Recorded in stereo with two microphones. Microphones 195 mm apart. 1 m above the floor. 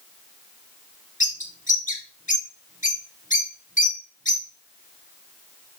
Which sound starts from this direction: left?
A bird, at 1.2 s.